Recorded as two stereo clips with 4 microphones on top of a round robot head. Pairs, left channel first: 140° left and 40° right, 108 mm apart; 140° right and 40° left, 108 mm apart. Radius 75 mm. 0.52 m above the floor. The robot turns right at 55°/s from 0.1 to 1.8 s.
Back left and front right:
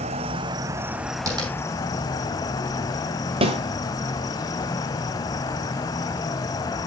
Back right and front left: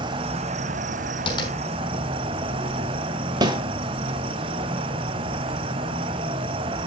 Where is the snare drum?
10° right, 2 m.